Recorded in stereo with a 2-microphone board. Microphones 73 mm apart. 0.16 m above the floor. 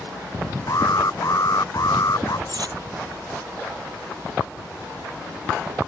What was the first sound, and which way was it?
An alarm, 50° left (ahead or behind).